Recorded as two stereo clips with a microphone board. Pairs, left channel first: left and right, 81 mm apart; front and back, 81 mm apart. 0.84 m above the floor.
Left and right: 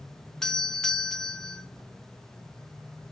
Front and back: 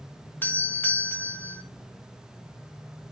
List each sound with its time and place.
0.4 s a doorbell: 20° left, 0.9 m